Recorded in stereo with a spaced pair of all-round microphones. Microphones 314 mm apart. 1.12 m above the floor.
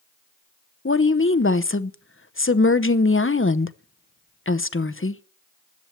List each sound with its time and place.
0.8 s a woman speaking: 45° left (ahead or behind), 0.8 m